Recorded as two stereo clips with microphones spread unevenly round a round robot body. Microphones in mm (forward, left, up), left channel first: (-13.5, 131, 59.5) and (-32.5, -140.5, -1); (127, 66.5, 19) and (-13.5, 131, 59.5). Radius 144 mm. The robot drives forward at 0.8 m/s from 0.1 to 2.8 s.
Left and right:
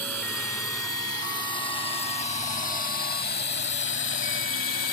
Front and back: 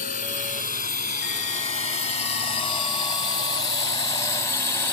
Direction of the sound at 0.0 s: Straight ahead.